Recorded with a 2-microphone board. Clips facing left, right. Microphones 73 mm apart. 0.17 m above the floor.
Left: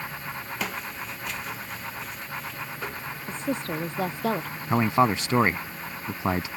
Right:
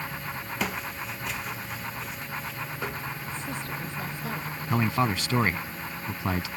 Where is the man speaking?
25° left (ahead or behind).